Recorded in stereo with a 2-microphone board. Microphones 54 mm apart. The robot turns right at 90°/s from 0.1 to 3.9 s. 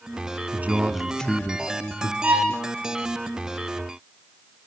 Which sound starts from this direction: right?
A violin, at 2.2 s.